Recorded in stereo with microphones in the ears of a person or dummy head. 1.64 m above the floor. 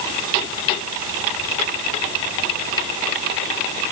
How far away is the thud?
No thud in this recording.